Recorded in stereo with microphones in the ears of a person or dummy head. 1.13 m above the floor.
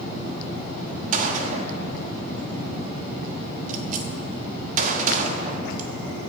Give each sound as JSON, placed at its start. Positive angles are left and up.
{"t": 1.1, "sound": "a gunshot", "side_deg": -50, "distance_m": 1.2}